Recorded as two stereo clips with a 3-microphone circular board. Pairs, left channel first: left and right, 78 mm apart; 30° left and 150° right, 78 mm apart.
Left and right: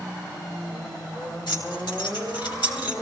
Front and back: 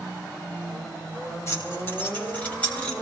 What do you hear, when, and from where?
1.5 s keys jangling: 85° left, 3.5 m; by 2.9 s 105° left, 4 m